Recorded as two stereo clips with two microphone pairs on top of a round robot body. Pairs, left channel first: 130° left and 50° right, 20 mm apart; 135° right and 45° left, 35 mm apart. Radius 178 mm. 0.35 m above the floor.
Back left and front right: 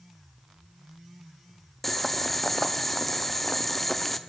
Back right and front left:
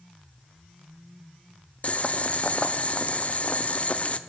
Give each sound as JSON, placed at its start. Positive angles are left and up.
{"t": 1.8, "sound": "boiling", "azimuth_deg": -145, "distance_m": 0.8}